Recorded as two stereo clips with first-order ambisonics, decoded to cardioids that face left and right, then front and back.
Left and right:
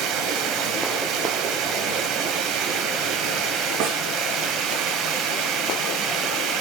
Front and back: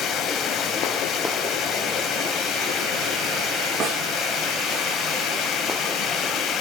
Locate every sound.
0.0 s running water: 55° right, 2.5 m
3.8 s a snare drum: 120° right, 9 m